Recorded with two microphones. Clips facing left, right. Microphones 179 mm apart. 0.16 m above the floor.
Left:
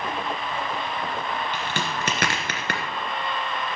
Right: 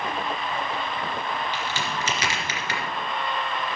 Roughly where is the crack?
Left.